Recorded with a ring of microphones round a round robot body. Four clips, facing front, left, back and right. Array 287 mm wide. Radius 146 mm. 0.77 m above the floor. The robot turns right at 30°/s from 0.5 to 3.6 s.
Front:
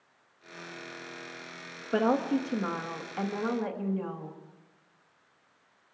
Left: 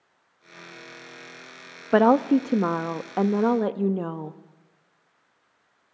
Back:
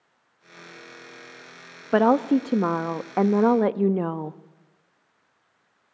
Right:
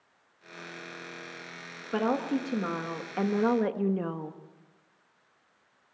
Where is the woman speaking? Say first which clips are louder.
Left 10 dB, back 7 dB; 120° left, 0.9 m; by 4.4 s 170° left, 0.9 m.